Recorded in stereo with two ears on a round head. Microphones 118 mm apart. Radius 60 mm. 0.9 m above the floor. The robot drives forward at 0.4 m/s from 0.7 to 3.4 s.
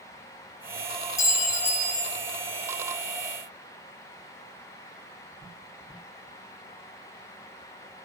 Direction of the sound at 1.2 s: 25° left (ahead or behind).